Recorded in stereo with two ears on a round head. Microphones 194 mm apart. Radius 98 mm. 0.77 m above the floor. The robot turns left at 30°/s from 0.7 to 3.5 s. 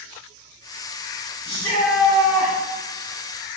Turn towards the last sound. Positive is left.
turn(degrees=-30)